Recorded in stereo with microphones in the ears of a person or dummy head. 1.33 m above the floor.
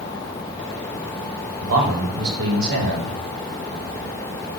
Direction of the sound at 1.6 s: 70° right (ahead or behind).